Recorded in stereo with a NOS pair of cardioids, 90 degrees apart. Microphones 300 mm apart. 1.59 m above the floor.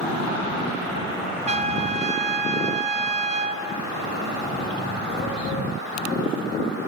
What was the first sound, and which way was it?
A trumpet, 20° right.